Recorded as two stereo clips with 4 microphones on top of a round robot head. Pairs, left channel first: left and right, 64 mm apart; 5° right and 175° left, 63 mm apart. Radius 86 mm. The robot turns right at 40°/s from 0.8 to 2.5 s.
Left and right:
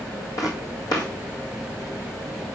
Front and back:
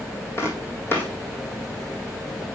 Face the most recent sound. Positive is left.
turn(degrees=115)